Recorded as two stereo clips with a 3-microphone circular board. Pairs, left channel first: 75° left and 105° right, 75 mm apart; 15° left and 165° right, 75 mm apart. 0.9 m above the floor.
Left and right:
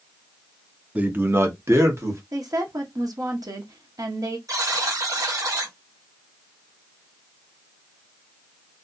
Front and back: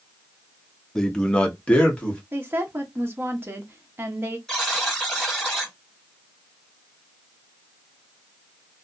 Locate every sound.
0.9 s a man speaking: 60° right, 0.5 m
2.3 s a woman speaking: 115° right, 0.9 m
4.5 s a buzzer: 70° right, 1.6 m